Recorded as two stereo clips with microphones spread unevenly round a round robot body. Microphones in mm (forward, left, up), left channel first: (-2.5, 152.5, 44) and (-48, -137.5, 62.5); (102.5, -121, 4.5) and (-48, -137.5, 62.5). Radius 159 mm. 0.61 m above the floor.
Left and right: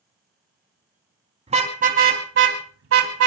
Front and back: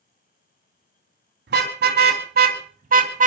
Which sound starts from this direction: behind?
A car horn, at 1.5 s.